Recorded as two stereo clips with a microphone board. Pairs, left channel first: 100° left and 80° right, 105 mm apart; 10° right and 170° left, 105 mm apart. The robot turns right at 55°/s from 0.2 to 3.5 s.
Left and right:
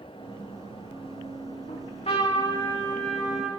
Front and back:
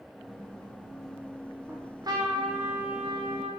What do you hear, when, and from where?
1.7 s a trumpet: 100° left, 8 m; by 3.5 s 160° right, 8 m